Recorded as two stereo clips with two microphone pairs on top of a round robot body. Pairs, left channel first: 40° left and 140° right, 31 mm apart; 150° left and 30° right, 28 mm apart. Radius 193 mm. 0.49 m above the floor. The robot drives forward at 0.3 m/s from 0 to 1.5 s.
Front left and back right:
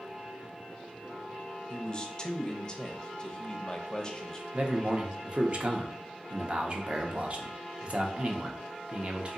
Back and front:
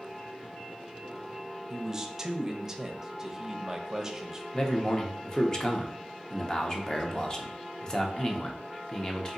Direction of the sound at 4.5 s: 155° right.